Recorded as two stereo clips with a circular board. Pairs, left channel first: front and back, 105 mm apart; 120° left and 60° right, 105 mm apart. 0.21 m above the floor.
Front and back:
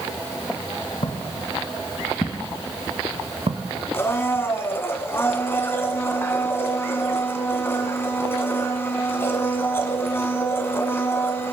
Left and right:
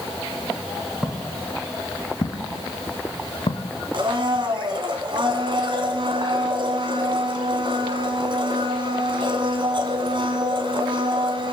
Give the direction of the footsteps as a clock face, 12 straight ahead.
11 o'clock.